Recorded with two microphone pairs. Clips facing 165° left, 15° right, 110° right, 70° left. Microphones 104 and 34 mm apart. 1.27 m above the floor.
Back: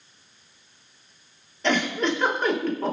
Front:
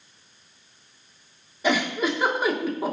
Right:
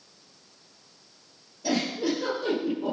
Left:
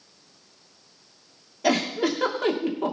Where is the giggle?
70° left, 2.5 m.